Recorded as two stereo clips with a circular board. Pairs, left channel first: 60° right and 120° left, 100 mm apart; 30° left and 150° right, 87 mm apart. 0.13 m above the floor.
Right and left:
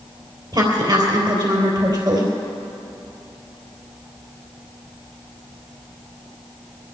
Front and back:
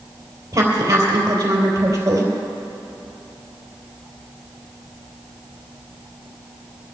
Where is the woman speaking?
160° left, 3.5 m.